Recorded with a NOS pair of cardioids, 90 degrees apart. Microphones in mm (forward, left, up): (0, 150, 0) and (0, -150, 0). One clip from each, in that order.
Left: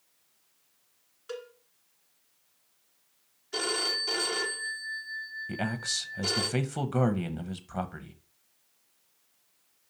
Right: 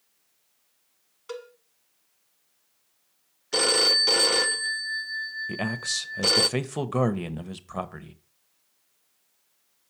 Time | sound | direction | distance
1.3 | a cowbell | 25° right | 1.2 m
3.5 | a phone ringing | 65° right | 0.8 m
5.5 | a man speaking | 15° right | 0.8 m